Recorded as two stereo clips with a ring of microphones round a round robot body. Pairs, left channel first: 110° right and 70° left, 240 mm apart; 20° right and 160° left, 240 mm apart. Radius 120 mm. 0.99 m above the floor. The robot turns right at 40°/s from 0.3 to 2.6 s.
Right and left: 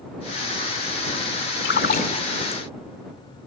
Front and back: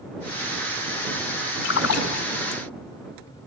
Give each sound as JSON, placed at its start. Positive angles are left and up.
{"t": 1.6, "sound": "a splash", "azimuth_deg": -65}